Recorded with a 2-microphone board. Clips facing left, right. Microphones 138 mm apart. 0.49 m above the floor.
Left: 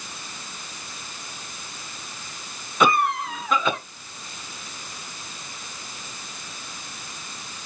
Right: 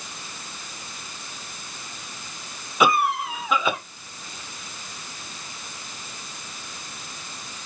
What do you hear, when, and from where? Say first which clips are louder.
2.8 s a cough: even; 5° right (ahead or behind), 1.0 m